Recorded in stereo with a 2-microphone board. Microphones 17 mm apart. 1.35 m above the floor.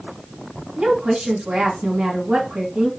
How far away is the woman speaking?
About 1.2 m.